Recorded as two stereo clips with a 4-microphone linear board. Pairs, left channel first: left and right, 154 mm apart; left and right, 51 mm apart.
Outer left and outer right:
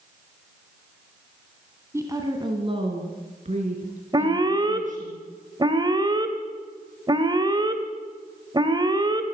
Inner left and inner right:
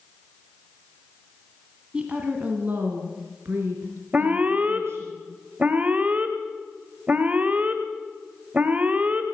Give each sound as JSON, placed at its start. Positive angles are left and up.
{"t": 1.9, "sound": "a woman speaking", "side_deg": -20, "distance_m": 2.5}
{"t": 4.1, "sound": "an alarm", "side_deg": -25, "distance_m": 2.0}